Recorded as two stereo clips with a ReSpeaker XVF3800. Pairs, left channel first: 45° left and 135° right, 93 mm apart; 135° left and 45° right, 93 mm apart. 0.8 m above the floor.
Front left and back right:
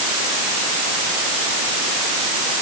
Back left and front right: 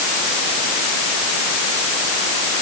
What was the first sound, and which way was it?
Only background noise.